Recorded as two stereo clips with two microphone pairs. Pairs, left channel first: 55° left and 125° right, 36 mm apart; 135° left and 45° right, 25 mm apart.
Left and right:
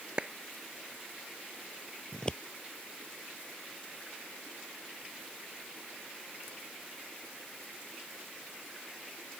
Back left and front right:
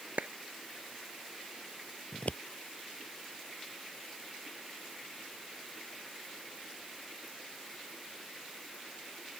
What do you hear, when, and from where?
0.2 s a clap: 55° right
2.1 s scissors: 125° left